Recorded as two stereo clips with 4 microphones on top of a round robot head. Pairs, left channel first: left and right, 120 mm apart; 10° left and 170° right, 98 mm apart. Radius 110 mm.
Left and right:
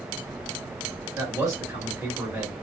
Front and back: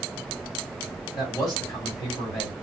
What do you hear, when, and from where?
1.1 s a man speaking: 30° right, 1.9 m